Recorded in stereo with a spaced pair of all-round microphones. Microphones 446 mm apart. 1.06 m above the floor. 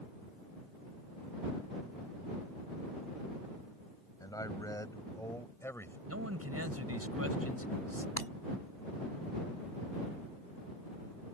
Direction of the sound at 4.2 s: 10° left (ahead or behind).